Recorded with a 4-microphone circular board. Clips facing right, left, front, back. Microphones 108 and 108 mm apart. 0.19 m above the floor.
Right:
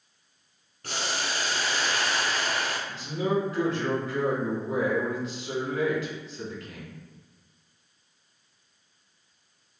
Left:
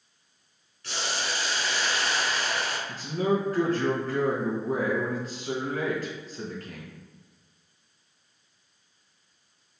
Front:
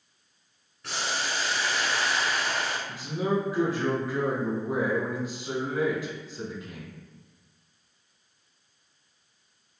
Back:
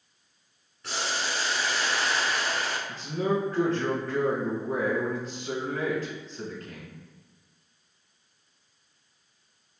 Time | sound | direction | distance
0.8 | boiling | 90° right | 1.1 m
2.9 | a man speaking | 75° left | 1.6 m